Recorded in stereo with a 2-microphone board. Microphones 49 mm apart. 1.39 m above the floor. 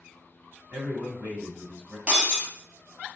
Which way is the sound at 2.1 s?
25° right (ahead or behind).